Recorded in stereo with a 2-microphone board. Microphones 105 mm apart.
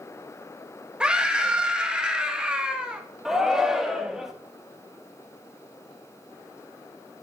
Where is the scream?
10° right (ahead or behind), 1.5 m.